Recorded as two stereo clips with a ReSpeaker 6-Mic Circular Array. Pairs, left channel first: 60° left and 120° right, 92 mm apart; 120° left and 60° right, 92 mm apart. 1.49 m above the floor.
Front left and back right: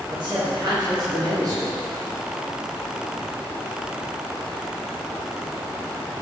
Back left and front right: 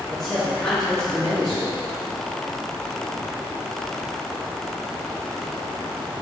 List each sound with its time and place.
0.1 s a man speaking: 155° right, 2.5 m; by 1.8 s 160° right, 4 m